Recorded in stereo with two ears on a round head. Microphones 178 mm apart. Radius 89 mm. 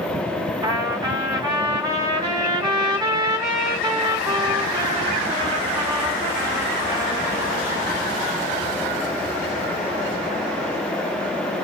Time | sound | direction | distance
0.6 | a trumpet | 20° right (ahead or behind) | 1.4 m